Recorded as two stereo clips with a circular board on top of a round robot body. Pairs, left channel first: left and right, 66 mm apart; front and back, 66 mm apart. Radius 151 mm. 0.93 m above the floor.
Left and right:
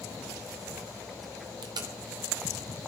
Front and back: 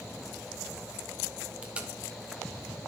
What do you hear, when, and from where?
1.6 s tape being pulled: 105° right, 0.6 m